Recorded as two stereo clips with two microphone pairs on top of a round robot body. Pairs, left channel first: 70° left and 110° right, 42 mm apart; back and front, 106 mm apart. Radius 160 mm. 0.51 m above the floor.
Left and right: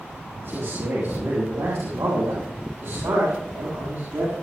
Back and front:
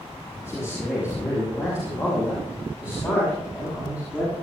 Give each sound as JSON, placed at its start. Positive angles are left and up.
{"t": 0.4, "sound": "a man speaking", "azimuth_deg": -115, "distance_m": 6.0}